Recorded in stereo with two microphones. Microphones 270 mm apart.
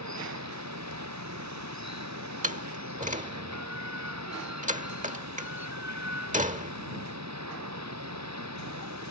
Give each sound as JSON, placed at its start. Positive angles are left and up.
{"t": 0.0, "sound": "running water", "side_deg": -80}
{"t": 2.4, "sound": "a door slam", "side_deg": -30}